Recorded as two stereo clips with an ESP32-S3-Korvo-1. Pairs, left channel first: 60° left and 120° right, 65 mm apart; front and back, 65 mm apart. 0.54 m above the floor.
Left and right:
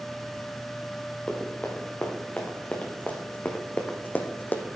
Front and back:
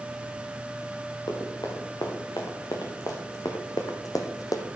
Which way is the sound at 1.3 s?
10° right.